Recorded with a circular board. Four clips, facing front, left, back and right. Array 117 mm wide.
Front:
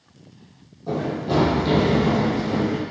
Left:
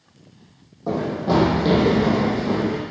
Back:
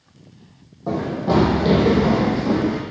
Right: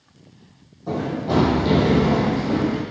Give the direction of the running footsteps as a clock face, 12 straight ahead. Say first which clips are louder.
Left 2 dB, back 3 dB; 7 o'clock.